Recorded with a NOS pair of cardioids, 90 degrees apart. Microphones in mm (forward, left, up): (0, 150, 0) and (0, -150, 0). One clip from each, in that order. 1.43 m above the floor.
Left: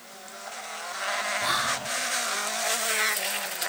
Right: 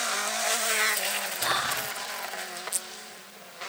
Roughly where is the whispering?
Ahead.